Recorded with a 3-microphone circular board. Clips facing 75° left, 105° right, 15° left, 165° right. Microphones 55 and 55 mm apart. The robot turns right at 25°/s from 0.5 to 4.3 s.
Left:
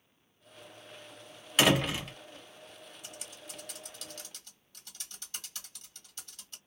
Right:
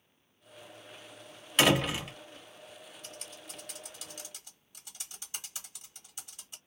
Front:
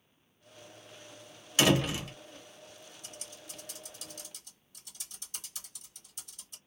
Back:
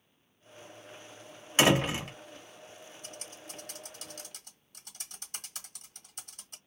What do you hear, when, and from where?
1.6 s a door slam: 160° left, 0.8 m; by 2.1 s 175° left, 0.8 m
3.0 s typing on a keyboard: 150° left, 1.4 m; by 6.6 s 175° right, 1.4 m